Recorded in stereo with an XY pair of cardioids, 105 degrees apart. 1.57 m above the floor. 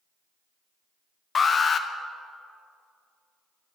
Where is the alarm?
40° left, 0.9 m.